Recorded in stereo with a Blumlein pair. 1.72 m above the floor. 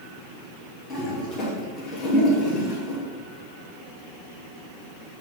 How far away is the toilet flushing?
About 2.5 m.